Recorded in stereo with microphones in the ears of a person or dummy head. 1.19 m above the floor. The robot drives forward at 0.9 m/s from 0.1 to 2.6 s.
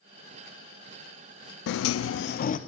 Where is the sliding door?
60° left (ahead or behind), 0.5 m; by 2.6 s 35° left (ahead or behind), 0.8 m.